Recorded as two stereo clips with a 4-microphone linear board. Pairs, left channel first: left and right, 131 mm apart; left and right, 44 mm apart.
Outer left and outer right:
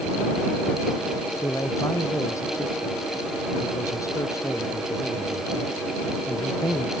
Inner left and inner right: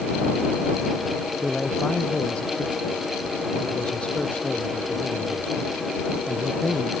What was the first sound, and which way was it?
A man speaking, 25° left (ahead or behind).